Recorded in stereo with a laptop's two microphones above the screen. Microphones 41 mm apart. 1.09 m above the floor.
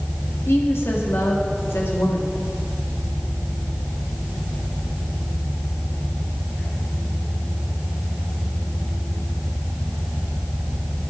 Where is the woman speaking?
80° left, 2.0 m.